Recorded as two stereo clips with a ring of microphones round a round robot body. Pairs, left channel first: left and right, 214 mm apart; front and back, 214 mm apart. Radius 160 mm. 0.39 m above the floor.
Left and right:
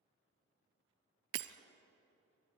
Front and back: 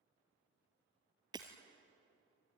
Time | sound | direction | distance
1.3 | breaking glass | 105° right | 0.9 m